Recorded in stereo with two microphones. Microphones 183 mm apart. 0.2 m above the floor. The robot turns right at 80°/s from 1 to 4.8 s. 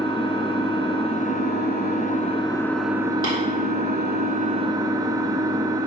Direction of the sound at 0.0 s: 35° left.